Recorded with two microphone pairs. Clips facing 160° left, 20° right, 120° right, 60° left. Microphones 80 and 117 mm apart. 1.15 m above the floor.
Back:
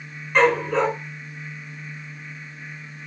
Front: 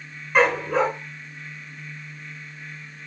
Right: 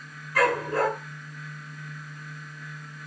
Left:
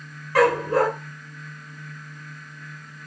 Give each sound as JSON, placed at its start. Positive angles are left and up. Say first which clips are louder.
{"t": 0.3, "sound": "a dog barking", "louder": "back 1 dB, left 5 dB", "azimuth_deg": 55, "distance_m": 5.5}